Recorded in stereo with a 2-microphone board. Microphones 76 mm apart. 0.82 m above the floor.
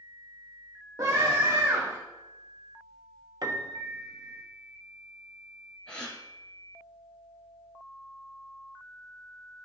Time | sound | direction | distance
1.0 | a scream | 50° right (ahead or behind) | 1.2 m
3.4 | a piano | 55° right (ahead or behind) | 1.0 m
5.9 | a gasp | 10° left (ahead or behind) | 3 m